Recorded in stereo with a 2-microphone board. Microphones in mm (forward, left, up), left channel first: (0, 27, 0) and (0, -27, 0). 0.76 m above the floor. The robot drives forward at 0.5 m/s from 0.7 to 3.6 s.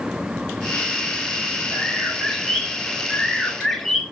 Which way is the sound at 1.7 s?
5° left (ahead or behind).